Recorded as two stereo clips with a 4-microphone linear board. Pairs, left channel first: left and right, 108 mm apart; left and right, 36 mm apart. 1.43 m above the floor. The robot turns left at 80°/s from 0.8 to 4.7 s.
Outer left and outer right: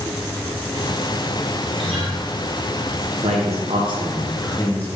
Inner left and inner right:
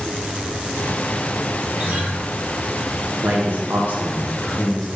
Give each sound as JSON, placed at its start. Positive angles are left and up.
{"t": 1.8, "sound": "a guitar", "side_deg": -50, "distance_m": 1.2}
{"t": 3.2, "sound": "a man speaking", "azimuth_deg": -75, "distance_m": 0.6}